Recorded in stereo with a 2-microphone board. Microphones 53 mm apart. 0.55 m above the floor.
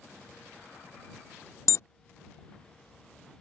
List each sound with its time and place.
1.7 s an alarm: 60° left (ahead or behind)